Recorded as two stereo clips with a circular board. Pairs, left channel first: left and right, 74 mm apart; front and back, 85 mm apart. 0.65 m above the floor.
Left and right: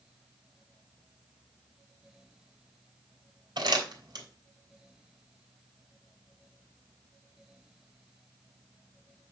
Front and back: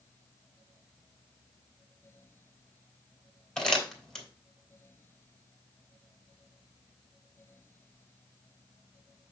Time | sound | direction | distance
3.6 | crumpling | 85° right | 3.5 m